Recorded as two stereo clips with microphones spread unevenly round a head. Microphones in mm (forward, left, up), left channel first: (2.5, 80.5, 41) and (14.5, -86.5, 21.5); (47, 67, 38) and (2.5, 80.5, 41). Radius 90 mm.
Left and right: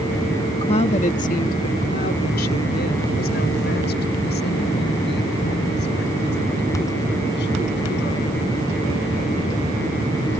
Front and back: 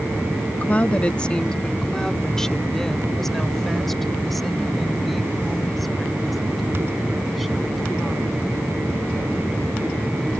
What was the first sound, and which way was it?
A woman speaking, 35° left.